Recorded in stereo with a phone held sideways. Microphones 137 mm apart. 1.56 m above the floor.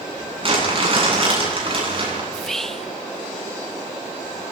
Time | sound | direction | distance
0.4 | crumpling | 40° right (ahead or behind) | 9.5 m
2.3 | whispering | 5° left (ahead or behind) | 0.7 m